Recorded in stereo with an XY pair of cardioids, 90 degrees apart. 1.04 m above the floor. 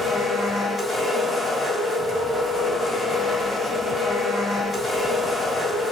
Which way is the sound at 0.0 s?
25° left.